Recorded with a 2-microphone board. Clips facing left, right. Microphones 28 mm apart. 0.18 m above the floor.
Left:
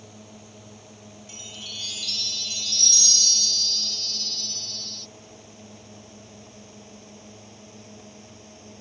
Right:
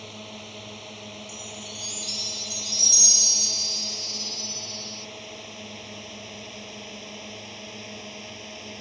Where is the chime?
35° left (ahead or behind).